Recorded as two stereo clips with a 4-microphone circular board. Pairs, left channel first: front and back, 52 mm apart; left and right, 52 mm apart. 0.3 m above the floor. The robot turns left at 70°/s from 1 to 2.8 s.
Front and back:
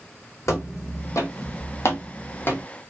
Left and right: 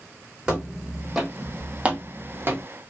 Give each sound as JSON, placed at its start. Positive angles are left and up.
{"t": 0.5, "sound": "footsteps", "azimuth_deg": -15, "distance_m": 1.2}